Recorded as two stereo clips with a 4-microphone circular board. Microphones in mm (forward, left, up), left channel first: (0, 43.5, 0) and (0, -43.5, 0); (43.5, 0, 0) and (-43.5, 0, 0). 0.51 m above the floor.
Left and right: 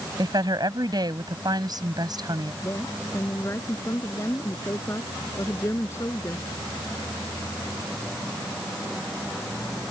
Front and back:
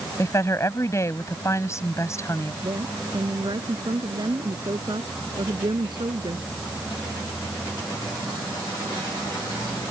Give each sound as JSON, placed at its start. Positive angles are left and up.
{"t": 0.2, "sound": "a woman speaking", "azimuth_deg": -55}
{"t": 2.6, "sound": "a woman speaking", "azimuth_deg": 150}